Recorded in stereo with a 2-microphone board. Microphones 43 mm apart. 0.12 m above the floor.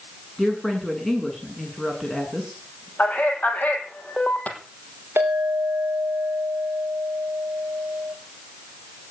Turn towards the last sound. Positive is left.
turn(degrees=-55)  # may be behind; listen again after turning